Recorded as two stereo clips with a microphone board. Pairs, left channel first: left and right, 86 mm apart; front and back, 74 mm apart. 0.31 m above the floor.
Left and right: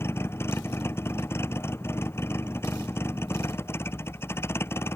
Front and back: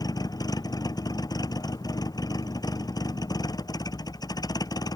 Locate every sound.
0.0 s a vehicle: 30° left